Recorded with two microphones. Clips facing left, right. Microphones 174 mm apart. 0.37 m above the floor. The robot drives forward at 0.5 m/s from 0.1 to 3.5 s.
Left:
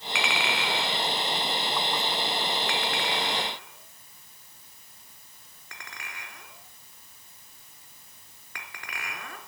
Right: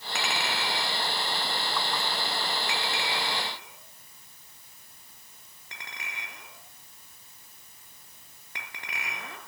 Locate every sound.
0.1 s a clink: 45° right (ahead or behind), 1.8 m; by 9.4 s 25° right (ahead or behind), 3 m